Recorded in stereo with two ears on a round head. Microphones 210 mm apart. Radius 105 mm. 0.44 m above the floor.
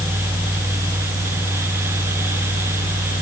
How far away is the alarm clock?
I don't hear an alarm clock.